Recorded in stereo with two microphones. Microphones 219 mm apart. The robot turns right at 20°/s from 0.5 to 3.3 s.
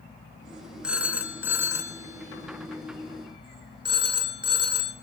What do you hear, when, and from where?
0.8 s a phone ringing: 5° right (ahead or behind), 0.9 m; by 4.9 s 20° right (ahead or behind), 0.9 m